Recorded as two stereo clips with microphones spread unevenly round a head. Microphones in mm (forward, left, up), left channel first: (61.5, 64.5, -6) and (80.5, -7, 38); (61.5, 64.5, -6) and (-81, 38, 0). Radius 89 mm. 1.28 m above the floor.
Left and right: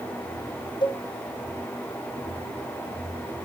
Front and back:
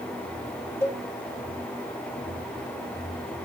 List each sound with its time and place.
0.8 s a cowbell: 85° left, 4 m